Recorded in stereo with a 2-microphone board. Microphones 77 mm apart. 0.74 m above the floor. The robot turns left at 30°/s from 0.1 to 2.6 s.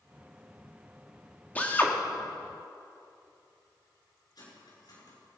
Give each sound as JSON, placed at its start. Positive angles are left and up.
{"t": 1.6, "sound": "a drill", "side_deg": 20, "distance_m": 1.5}
{"t": 4.3, "sound": "cutlery clinking", "side_deg": 60, "distance_m": 6.5}